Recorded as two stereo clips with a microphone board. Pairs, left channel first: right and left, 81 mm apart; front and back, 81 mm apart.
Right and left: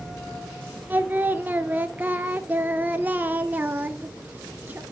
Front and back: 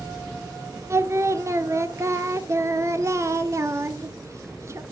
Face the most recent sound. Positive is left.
turn(degrees=150)